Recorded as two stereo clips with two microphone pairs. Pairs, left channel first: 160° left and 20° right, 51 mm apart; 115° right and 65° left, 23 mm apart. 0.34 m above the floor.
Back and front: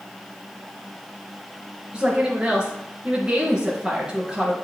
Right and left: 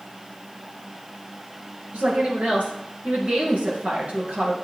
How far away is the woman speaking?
About 4.5 m.